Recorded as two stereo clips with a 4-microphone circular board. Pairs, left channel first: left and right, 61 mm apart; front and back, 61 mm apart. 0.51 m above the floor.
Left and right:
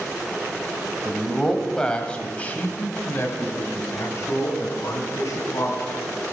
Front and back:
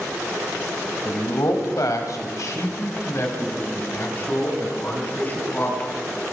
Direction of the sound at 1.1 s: Straight ahead.